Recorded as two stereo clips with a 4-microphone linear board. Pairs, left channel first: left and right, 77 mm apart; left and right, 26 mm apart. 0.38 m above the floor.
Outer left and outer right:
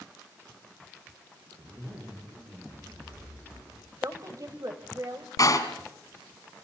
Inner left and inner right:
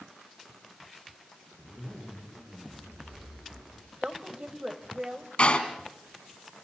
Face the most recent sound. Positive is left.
turn(degrees=50)  # may be behind; listen again after turning